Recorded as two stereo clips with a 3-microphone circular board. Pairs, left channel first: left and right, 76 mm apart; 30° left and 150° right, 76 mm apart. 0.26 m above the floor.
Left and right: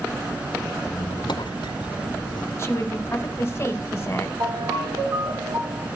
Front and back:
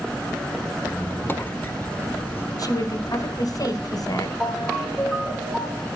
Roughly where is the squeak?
Left.